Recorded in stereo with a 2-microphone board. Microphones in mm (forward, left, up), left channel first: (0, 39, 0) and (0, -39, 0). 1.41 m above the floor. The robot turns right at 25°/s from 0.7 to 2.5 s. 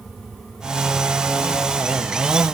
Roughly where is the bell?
I don't hear a bell.